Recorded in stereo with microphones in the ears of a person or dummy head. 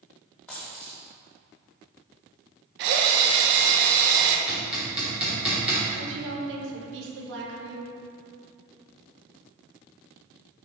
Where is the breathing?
No breathing in this recording.